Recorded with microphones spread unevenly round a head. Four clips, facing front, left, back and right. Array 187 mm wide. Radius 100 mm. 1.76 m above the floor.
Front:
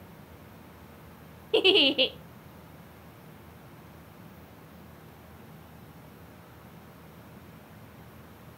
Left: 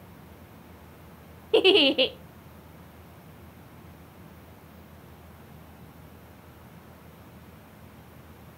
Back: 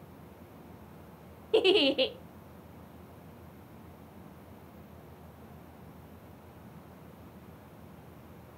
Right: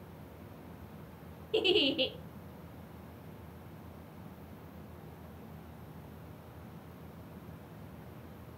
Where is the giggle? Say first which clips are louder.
Left 9 dB, front 1 dB; 70° left, 0.6 m.